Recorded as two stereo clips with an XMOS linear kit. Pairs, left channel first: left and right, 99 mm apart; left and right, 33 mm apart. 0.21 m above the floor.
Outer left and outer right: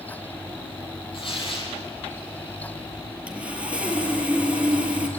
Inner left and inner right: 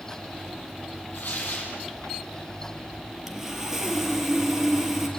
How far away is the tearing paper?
About 8 m.